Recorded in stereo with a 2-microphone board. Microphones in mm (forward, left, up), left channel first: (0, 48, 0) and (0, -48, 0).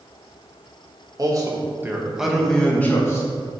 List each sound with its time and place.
1.2 s a man speaking: 40° right (ahead or behind), 1.7 m; by 3.3 s 30° left (ahead or behind), 1.7 m